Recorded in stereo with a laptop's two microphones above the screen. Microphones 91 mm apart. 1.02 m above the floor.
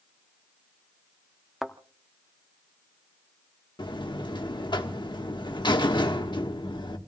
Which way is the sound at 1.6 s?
5° right (ahead or behind).